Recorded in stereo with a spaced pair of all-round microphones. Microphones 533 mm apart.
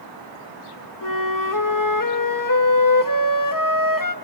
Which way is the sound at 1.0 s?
40° left (ahead or behind).